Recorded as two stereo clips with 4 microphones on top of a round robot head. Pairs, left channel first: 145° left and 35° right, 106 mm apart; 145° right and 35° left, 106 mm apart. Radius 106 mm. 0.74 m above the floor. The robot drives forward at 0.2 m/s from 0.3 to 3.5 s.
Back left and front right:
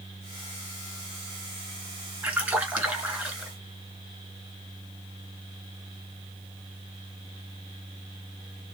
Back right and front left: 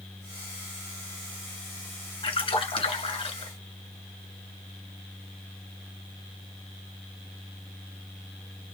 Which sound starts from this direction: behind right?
A splash, at 2.2 s.